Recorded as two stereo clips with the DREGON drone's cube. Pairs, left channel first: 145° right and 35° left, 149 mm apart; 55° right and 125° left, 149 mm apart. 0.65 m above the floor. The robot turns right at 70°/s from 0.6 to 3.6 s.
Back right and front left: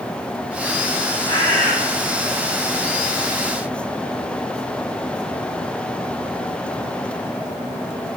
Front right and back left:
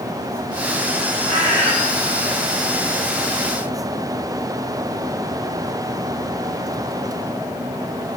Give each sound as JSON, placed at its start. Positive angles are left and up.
{"t": 1.3, "sound": "a bird", "azimuth_deg": 155, "distance_m": 3.5}